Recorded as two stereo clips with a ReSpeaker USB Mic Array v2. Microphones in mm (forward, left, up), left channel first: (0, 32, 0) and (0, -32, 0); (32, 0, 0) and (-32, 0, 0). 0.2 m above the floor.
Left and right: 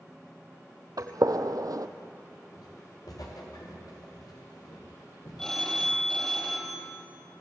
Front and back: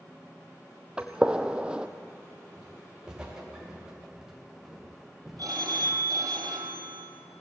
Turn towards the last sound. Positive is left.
turn(degrees=170)